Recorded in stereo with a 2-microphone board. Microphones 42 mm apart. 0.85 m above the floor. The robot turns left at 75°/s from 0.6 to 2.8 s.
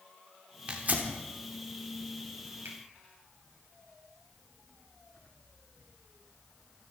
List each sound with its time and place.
0.7 s tearing paper: 30° right (ahead or behind), 3 m; by 1.1 s 55° right (ahead or behind), 3 m
2.6 s a finger snap: 75° right (ahead or behind), 5.5 m; by 2.8 s 85° right, 5.5 m